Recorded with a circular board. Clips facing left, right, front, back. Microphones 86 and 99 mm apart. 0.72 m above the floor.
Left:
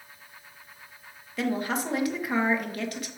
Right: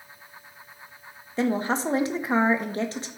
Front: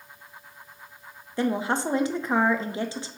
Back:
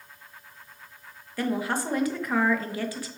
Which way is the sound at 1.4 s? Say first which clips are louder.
Right 4 dB, front 2 dB; 50° right.